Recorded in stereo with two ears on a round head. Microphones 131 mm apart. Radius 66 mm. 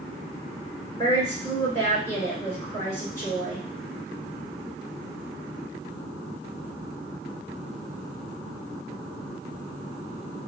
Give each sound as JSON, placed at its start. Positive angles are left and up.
{"t": 0.9, "sound": "a woman speaking", "side_deg": 20, "distance_m": 1.5}